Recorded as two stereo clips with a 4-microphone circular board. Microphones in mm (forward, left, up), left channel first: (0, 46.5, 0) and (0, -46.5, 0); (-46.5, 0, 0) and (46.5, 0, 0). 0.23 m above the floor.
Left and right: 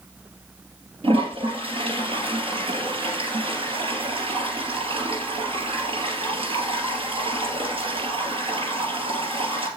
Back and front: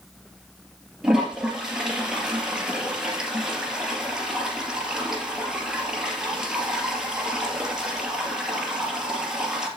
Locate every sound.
1.0 s a toilet flushing: 80° right, 3.5 m